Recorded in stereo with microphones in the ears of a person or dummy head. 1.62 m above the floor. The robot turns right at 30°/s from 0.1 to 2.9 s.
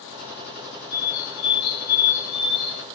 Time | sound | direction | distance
0.9 | a bird | 70° left | 1.5 m